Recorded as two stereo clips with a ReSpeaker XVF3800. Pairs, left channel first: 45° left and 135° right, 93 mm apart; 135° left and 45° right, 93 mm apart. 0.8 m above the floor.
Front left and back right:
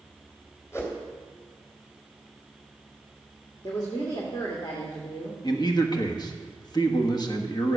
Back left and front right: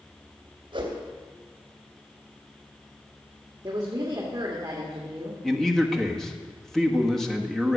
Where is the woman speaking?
5° left, 1.9 m.